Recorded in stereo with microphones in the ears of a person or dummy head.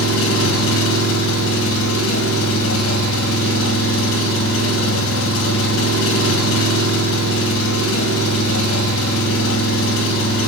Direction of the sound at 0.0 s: 80° left.